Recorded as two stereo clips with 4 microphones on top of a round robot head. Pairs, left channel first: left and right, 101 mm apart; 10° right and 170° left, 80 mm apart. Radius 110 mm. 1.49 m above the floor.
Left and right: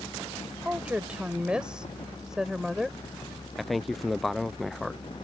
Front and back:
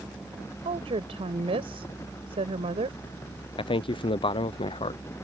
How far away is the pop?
I don't hear a pop.